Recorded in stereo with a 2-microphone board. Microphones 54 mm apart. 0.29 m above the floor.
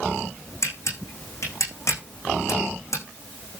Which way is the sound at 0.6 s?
70° left (ahead or behind).